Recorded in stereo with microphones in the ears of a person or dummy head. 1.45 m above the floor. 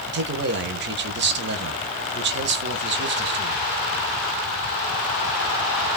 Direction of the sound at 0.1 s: 55° right (ahead or behind).